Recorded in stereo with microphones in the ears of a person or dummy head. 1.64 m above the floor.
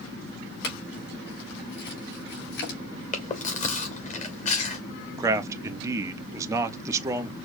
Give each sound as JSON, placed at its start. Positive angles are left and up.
{"t": 0.6, "sound": "a clink", "side_deg": 60, "distance_m": 2.5}
{"t": 3.1, "sound": "chewing", "side_deg": 40, "distance_m": 0.9}
{"t": 5.2, "sound": "a man speaking", "side_deg": -20, "distance_m": 0.7}